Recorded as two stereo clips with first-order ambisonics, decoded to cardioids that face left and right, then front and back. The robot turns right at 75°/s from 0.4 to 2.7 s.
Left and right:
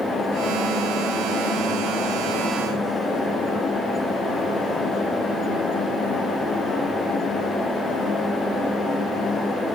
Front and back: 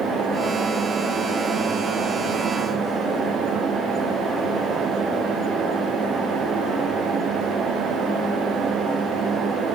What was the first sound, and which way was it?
Only background noise.